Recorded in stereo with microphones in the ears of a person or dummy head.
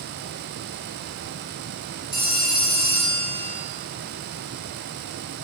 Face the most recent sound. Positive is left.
turn(degrees=20)  # may be behind; listen again after turning